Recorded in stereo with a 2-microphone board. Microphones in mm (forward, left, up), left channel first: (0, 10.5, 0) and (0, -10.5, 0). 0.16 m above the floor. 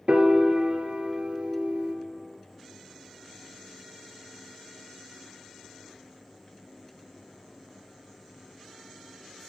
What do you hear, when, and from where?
0.1 s a piano: 55° right (ahead or behind), 0.8 m